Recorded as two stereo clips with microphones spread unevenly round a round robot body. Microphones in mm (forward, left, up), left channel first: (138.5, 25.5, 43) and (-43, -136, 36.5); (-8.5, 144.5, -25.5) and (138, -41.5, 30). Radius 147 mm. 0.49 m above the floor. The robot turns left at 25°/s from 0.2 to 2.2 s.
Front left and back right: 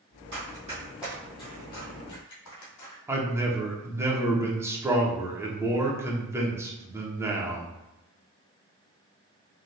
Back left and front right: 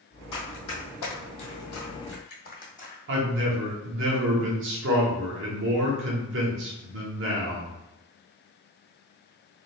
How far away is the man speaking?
About 0.8 m.